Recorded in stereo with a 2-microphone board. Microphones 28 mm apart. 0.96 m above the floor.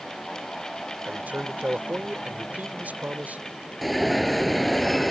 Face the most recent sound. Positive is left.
turn(degrees=0)  # may be behind; listen again after turning